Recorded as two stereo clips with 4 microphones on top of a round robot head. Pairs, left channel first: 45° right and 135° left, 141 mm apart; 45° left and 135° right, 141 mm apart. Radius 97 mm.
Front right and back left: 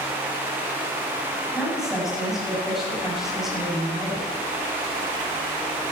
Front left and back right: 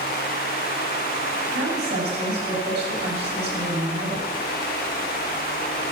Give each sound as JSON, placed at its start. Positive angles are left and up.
{"t": 1.5, "sound": "a woman speaking", "azimuth_deg": -140, "distance_m": 8.0}